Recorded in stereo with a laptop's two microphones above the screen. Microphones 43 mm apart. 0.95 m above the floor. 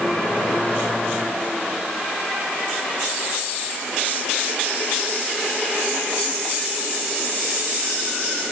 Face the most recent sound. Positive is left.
No sound to turn to.